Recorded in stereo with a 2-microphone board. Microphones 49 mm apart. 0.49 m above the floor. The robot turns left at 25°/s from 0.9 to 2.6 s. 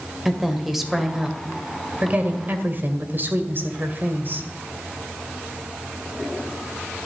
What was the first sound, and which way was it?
A woman speaking, 5° right.